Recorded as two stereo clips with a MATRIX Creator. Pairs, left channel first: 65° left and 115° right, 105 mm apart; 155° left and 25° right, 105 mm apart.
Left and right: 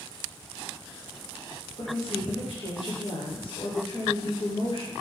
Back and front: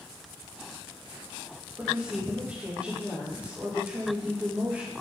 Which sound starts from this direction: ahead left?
A woman speaking, at 1.8 s.